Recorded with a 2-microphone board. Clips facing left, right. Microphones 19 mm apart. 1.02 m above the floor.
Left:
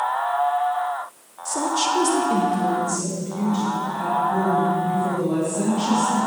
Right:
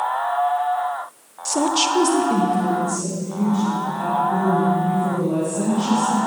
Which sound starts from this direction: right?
A woman speaking, at 1.4 s.